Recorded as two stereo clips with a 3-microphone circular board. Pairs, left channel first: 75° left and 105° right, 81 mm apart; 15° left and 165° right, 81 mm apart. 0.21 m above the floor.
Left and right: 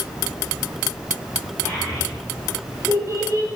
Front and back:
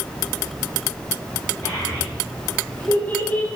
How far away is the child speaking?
About 5 m.